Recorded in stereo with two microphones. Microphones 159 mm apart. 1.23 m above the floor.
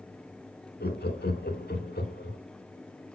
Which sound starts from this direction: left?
Laughter, at 0.8 s.